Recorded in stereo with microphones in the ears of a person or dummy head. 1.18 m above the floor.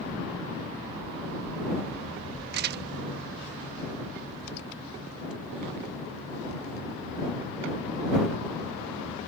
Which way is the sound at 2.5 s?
55° right (ahead or behind).